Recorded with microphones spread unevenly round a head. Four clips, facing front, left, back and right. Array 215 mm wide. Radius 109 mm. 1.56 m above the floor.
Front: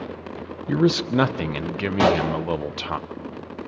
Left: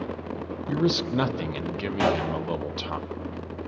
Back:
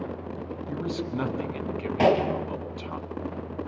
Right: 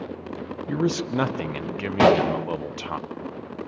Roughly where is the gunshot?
Right.